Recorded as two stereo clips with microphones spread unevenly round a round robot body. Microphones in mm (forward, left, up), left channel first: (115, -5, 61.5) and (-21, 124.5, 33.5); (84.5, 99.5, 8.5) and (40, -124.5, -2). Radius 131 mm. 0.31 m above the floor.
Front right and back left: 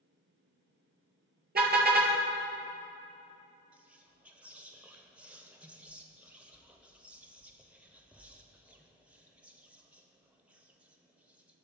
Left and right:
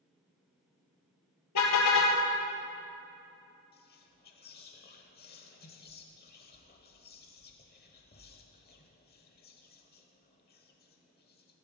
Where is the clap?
I don't hear a clap.